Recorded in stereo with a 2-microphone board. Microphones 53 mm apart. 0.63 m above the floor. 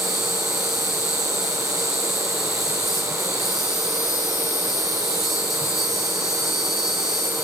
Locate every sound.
0.0 s an insect: 5° right (ahead or behind), 6.5 m